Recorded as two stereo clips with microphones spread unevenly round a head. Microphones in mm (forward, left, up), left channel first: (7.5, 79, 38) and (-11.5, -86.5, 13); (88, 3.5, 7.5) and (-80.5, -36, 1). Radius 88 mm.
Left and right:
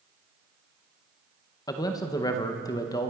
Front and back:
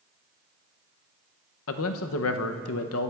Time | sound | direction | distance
1.7 | a man speaking | 15° left | 0.6 m